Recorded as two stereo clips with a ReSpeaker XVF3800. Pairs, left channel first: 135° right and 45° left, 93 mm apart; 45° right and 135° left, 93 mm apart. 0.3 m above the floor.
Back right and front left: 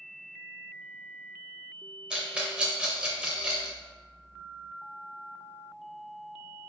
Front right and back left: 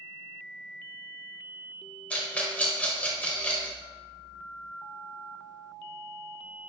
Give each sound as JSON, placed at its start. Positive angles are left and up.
{"t": 2.1, "sound": "a rattle", "azimuth_deg": -10, "distance_m": 0.7}